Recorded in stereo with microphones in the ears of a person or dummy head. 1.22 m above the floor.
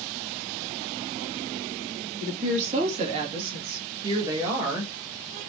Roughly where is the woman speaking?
Right.